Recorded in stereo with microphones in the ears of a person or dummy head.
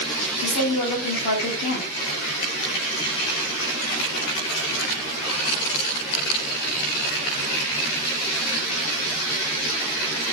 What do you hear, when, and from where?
0.4 s a woman speaking: 50° left (ahead or behind), 2.5 m